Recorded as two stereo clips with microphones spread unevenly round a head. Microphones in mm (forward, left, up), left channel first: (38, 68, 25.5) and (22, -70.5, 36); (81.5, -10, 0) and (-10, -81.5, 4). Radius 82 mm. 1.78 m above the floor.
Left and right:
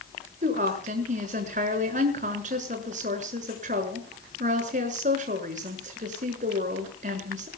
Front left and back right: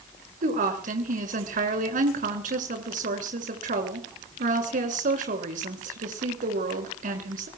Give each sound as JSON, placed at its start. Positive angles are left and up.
{"t": 0.4, "sound": "a woman speaking", "azimuth_deg": -145, "distance_m": 7.0}